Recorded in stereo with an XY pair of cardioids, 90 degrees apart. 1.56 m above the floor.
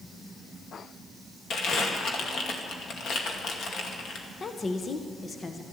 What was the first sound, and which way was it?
Crumpling, 65° left.